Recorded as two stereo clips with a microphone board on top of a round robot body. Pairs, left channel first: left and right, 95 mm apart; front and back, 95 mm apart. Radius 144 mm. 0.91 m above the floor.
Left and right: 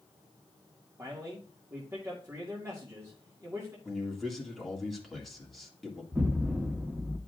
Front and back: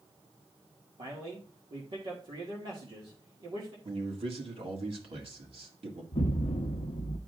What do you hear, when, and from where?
1.0 s a man speaking: 150° right, 1.8 m
3.9 s a man speaking: straight behind, 1.9 m
6.1 s an explosion: 15° right, 0.6 m